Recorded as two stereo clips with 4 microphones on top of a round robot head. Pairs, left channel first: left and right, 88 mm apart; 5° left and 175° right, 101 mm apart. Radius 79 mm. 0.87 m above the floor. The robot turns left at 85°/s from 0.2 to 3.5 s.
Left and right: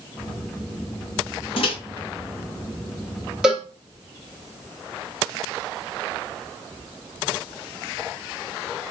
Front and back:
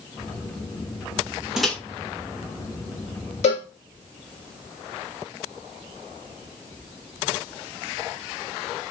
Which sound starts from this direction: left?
A microwave, at 1.6 s.